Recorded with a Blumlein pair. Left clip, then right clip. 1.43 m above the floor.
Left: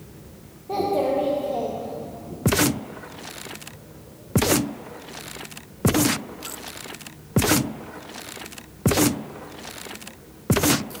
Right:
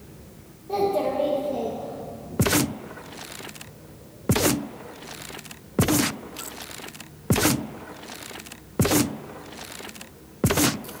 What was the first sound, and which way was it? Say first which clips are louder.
A child speaking: left 1 dB; 10° left.